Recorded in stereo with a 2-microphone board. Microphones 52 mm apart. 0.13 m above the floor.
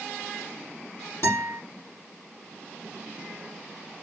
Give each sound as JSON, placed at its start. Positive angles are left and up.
{"t": 1.2, "sound": "a guitar", "side_deg": 65, "distance_m": 4.0}